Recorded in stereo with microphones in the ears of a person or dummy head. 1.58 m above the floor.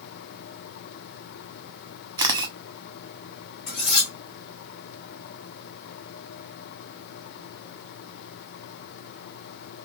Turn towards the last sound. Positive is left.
turn(degrees=35)  # may be behind; listen again after turning